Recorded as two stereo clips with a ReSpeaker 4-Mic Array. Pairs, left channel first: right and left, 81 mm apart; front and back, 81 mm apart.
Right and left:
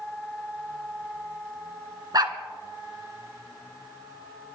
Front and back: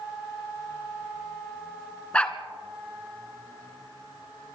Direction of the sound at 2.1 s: 70° left.